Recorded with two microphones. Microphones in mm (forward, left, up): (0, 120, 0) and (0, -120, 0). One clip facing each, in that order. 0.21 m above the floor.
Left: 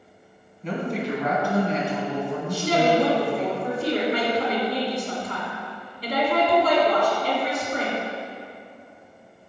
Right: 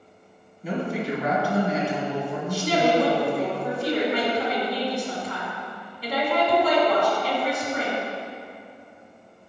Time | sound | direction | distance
0.6 | a woman speaking | 5° right (ahead or behind) | 1.9 m
2.5 | a woman speaking | 40° left (ahead or behind) | 2 m